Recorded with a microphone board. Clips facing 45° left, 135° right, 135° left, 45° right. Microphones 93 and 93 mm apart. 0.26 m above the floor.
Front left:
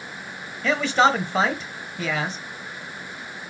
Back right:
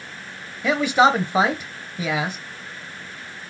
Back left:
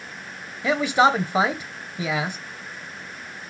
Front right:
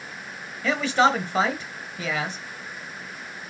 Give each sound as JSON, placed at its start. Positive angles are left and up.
{"t": 0.6, "sound": "a man speaking", "azimuth_deg": 170, "distance_m": 0.9}